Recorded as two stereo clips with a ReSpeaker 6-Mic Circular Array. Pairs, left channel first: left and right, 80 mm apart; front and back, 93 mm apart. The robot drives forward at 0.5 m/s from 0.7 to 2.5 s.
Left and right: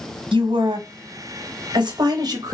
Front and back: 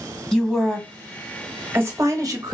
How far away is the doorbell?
No doorbell in this recording.